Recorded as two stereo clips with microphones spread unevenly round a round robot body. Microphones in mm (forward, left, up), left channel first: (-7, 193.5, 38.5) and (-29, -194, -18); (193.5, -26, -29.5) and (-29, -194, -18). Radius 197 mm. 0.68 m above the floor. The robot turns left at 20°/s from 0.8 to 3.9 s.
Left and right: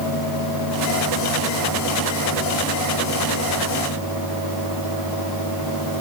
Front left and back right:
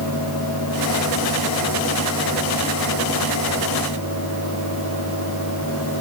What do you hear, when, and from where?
Only background noise.